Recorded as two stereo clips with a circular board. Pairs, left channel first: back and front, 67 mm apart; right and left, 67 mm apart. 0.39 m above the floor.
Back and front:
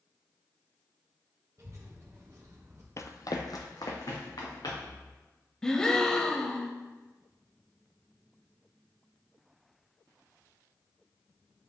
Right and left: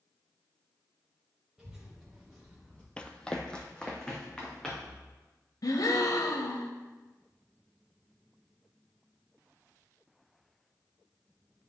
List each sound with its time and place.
1.6 s a child speaking: 10° left, 1.5 m; by 2.9 s 20° right, 1.6 m
3.0 s running footsteps: 160° right, 0.5 m; by 5.0 s 170° right, 3 m
5.6 s a gasp: 100° right, 0.6 m